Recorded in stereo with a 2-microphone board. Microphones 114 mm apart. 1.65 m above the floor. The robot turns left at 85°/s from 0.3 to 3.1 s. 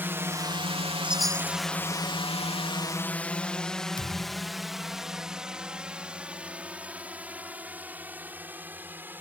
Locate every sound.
0.0 s a drone: 20° right (ahead or behind); by 9.2 s 15° right (ahead or behind)
1.0 s a chime: 165° right; by 1.6 s 150° left
4.0 s a thud: 45° left (ahead or behind)